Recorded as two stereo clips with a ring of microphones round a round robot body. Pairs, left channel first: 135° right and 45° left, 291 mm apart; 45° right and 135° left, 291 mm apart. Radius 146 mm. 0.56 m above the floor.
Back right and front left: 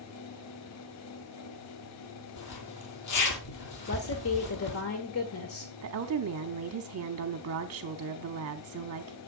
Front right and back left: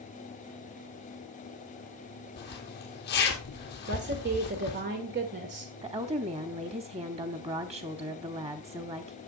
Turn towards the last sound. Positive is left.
turn(degrees=70)